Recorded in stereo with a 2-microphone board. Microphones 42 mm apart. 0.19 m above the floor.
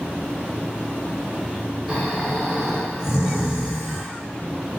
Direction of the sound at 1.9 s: 10° right (ahead or behind).